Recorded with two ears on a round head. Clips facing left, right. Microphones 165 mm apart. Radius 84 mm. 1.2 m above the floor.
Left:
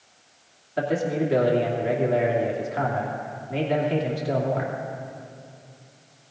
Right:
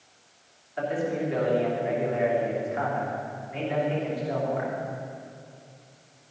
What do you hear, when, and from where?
0.8 s a man speaking: 45° left (ahead or behind), 2.5 m